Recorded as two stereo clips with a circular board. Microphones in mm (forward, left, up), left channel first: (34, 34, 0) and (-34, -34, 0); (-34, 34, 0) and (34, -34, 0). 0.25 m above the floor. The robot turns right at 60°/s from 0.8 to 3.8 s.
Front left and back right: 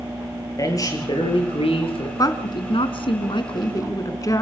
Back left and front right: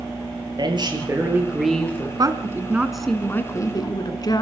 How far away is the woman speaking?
About 2 m.